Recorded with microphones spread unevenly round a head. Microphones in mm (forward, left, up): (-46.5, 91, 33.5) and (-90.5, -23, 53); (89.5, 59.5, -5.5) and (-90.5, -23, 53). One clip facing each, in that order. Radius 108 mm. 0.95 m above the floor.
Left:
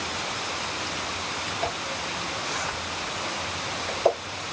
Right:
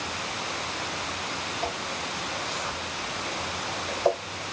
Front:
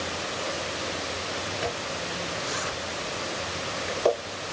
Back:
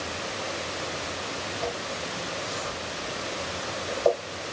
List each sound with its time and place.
1.6 s a zipper: straight ahead, 2.0 m